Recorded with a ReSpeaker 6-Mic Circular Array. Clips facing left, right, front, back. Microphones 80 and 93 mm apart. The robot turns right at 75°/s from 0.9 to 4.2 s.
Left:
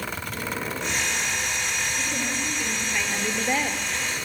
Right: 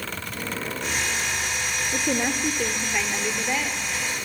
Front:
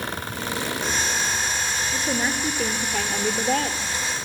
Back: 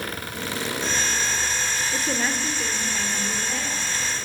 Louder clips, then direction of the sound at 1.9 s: Right 4 dB, front 2 dB; 95° right.